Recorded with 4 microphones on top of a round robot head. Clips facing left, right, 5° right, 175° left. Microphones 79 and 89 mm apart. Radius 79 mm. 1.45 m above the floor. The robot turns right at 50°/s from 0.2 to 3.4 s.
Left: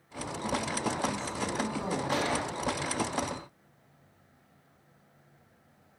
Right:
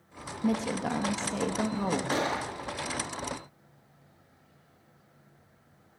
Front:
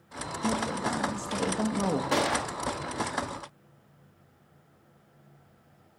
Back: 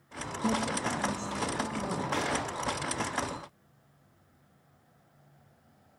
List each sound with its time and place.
0.4 s a woman speaking: 100° right, 2.5 m; by 2.0 s 20° right, 2.5 m
2.1 s a gunshot: 30° right, 2.5 m; by 2.5 s 10° right, 2.5 m